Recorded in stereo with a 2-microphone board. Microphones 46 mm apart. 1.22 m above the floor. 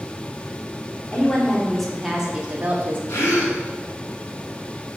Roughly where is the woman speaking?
Left.